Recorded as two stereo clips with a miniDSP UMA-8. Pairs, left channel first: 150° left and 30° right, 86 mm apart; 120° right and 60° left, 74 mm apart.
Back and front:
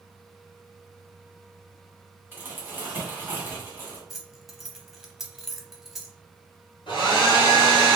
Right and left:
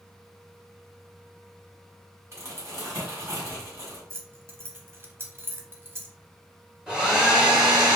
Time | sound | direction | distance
2.3 | crumpling | 25° left | 1.6 m
4.1 | keys jangling | 50° left | 0.7 m
6.9 | a hair dryer | 140° left | 1.8 m